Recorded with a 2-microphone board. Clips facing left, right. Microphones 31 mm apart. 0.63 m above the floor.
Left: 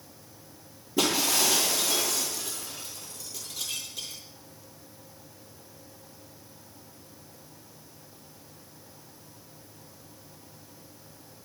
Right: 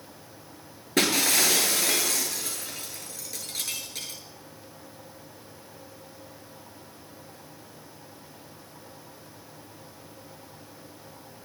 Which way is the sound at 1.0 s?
80° right.